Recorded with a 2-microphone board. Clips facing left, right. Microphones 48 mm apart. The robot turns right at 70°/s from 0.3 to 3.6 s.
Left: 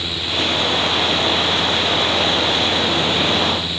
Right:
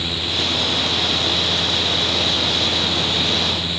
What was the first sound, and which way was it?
Only background noise.